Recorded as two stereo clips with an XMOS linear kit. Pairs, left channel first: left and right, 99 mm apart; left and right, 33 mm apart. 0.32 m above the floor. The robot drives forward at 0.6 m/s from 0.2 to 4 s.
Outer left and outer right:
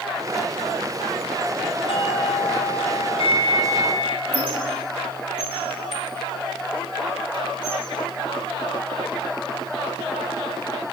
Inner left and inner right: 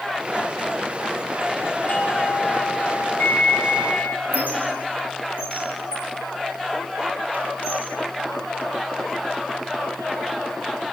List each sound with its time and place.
1.9 s a doorbell: 65° left (ahead or behind), 3.5 m
4.3 s a squeak: 50° right (ahead or behind), 4 m